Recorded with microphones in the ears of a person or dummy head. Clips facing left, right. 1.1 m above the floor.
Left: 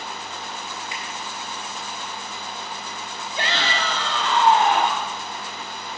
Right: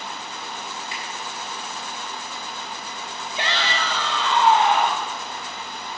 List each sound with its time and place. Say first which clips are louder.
0.9 s a finger snap: even; 30° right (ahead or behind), 7 m
3.4 s a shout: left 1 dB; 35° left (ahead or behind), 2 m